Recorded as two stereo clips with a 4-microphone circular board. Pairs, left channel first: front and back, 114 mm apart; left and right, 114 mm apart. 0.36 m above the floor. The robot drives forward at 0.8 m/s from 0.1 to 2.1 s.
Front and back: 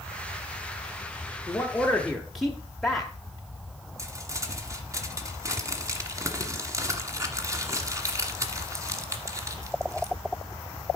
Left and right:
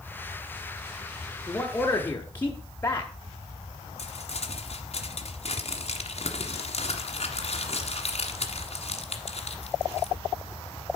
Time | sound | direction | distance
1.5 | a man speaking | 40° left | 1.4 m
4.0 | crumpling | 120° left | 1.3 m